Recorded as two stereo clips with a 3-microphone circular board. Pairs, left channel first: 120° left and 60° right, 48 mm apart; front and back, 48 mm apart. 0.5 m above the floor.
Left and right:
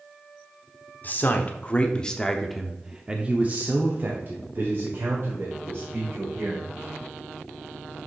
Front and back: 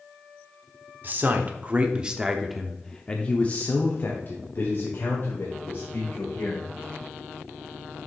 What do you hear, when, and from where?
1.0 s a man speaking: 150° left, 1.0 m; by 6.7 s 30° right, 2.5 m